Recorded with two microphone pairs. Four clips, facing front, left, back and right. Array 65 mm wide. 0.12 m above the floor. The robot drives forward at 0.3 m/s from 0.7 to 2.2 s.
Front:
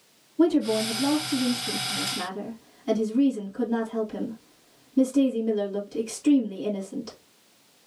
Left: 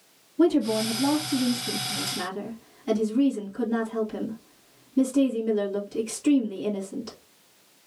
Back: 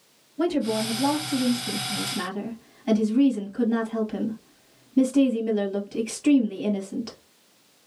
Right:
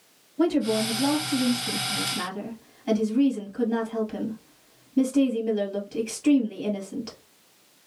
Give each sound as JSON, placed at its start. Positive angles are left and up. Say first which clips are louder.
{"t": 0.4, "sound": "a woman speaking", "louder": "left 1 dB, front 3 dB", "azimuth_deg": -145, "distance_m": 2.0}